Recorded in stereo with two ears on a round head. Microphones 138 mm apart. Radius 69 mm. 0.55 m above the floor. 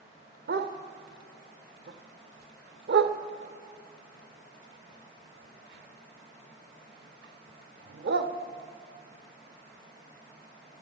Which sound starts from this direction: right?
A dog barking, at 0.5 s.